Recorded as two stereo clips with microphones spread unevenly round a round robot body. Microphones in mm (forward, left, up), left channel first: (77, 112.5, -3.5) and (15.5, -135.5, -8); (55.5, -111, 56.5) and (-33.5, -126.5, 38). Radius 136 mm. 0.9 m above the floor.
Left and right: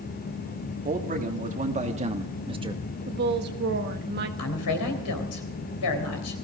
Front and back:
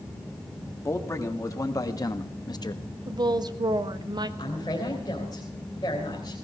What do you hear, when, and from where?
0.8 s a man speaking: 50° right, 2 m; by 2.8 s 35° right, 1.4 m
3.1 s a woman speaking: 155° right, 1.2 m
4.4 s a woman speaking: 80° left, 3.5 m